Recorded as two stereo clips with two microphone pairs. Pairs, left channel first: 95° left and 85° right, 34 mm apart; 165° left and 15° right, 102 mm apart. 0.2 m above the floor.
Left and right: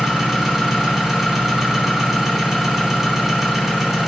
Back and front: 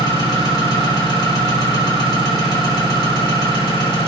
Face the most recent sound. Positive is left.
turn(degrees=-170)